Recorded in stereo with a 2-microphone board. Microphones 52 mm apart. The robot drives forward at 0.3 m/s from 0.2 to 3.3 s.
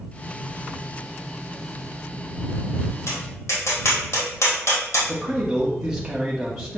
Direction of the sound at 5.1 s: 10° right (ahead or behind).